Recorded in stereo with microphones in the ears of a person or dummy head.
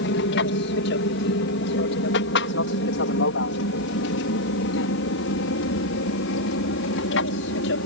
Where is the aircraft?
55° left (ahead or behind); by 7.9 s 65° left (ahead or behind).